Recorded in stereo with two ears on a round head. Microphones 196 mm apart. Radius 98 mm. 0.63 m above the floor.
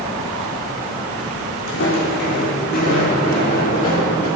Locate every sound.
1.7 s footsteps: 65° left (ahead or behind), 2.5 m; by 4.3 s 30° left (ahead or behind), 4.5 m